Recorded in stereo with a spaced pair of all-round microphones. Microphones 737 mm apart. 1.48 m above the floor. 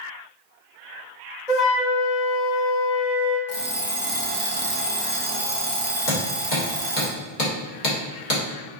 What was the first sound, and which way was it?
A flute, 50° left (ahead or behind).